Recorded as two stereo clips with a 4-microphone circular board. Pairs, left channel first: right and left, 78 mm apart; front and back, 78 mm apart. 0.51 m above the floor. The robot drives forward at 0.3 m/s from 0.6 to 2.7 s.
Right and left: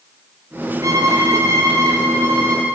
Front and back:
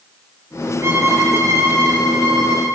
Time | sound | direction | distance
0.8 | a violin | 130° left | 2 m